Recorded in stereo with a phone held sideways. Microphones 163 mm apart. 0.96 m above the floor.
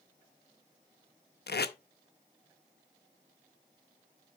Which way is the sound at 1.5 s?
85° left.